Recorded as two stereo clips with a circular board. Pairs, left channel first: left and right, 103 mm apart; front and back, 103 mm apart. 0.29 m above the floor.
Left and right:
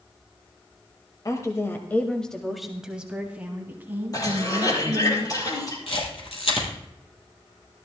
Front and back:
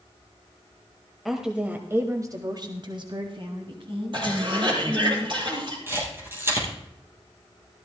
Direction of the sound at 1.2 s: 90° left.